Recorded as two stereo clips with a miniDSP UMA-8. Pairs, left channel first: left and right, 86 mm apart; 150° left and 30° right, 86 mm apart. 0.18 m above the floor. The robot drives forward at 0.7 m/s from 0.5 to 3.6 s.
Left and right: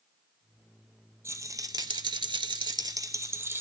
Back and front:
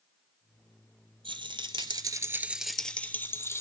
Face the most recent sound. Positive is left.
turn(degrees=-150)